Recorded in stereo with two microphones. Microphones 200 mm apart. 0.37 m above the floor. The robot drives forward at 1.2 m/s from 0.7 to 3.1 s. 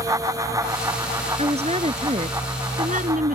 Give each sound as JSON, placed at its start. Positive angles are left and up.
{"t": 1.4, "sound": "a woman speaking", "side_deg": -30}